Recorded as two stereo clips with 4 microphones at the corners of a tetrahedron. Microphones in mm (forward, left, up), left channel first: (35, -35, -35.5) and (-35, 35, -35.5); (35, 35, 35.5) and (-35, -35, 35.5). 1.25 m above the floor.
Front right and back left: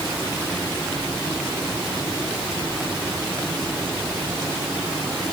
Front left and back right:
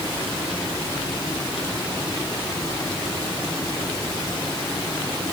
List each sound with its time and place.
Only background noise.